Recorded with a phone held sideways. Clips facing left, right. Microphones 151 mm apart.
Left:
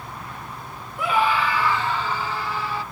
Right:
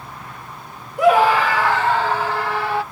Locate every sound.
1.0 s a scream: 80° right; by 2.8 s 75° right (ahead or behind)